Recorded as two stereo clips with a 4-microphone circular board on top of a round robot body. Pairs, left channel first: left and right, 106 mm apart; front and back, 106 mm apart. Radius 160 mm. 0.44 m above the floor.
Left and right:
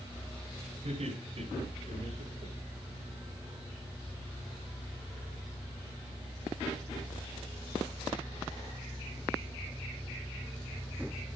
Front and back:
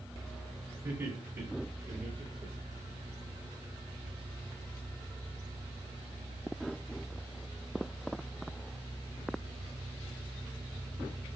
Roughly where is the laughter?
Behind right.